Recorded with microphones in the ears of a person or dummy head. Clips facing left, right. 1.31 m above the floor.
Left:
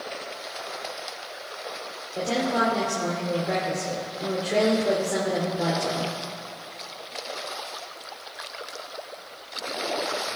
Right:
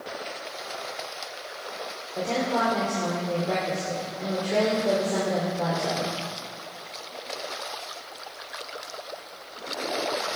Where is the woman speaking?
15° left (ahead or behind), 3.5 m.